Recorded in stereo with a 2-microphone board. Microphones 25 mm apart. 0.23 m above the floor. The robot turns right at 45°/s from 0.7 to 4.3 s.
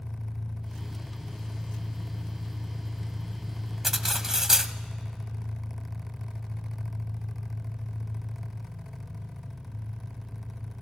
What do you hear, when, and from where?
0.0 s an engine running: 90° left, 7 m; by 10.8 s 110° right, 7 m
3.8 s cutlery clinking: 10° right (ahead or behind), 0.7 m; by 4.7 s 20° right (ahead or behind), 0.7 m